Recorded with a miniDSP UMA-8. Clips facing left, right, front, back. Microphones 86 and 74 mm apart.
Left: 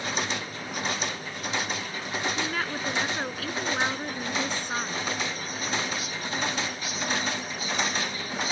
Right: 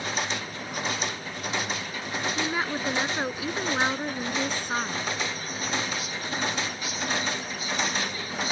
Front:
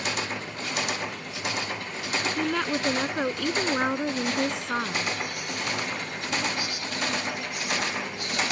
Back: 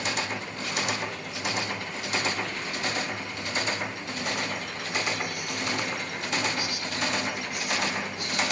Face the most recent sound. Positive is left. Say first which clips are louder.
# right 2 dB, front 6 dB
turn(degrees=-15)